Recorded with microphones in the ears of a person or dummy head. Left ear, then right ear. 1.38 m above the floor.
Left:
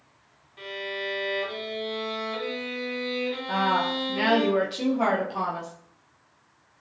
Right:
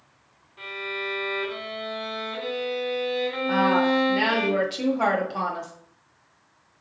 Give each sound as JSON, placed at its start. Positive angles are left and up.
{"t": 0.6, "sound": "a violin", "side_deg": 15, "distance_m": 1.9}
{"t": 3.5, "sound": "a woman speaking", "side_deg": -10, "distance_m": 0.5}